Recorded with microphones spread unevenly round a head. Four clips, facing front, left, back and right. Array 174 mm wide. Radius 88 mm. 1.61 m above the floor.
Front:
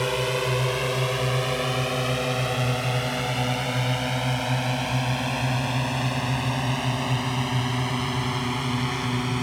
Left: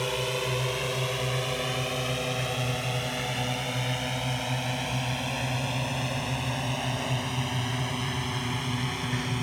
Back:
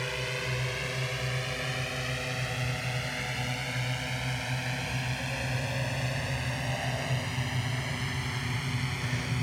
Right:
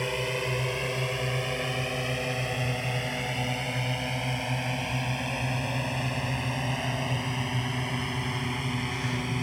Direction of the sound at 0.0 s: Straight ahead.